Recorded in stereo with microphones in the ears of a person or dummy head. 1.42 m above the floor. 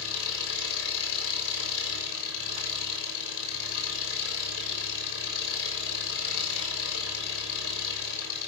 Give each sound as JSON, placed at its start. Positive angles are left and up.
{"t": 0.0, "sound": "an engine running", "side_deg": 75, "distance_m": 6.5}